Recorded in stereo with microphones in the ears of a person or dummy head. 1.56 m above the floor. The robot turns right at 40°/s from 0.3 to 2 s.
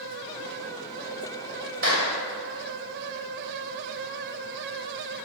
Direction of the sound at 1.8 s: 75° right (ahead or behind).